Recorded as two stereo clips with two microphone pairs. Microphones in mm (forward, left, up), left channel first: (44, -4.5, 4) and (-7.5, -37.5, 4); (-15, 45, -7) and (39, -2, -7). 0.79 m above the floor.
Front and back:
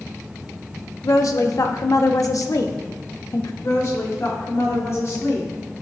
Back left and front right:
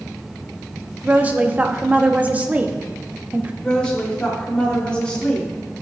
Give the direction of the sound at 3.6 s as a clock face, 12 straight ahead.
10 o'clock.